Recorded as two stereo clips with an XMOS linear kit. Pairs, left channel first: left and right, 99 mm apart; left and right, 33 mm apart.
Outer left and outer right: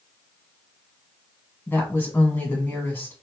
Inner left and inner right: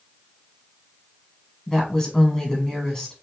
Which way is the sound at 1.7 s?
25° left (ahead or behind).